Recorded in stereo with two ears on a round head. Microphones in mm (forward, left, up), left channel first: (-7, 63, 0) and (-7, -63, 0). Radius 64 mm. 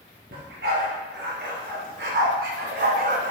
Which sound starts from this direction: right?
A dog barking, at 0.3 s.